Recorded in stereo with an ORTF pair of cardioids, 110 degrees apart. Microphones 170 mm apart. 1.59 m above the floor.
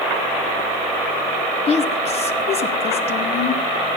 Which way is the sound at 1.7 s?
40° left.